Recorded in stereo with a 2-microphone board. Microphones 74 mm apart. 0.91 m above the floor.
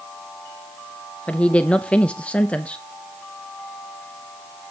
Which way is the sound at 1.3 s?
15° left (ahead or behind).